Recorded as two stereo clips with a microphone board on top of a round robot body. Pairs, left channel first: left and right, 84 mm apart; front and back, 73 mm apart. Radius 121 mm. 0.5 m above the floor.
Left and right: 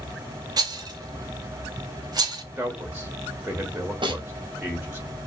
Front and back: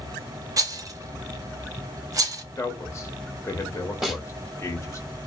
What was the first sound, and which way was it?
A rattle, 135° right.